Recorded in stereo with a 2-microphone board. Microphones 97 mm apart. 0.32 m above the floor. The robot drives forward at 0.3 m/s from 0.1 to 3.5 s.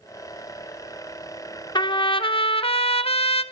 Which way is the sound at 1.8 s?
50° left (ahead or behind).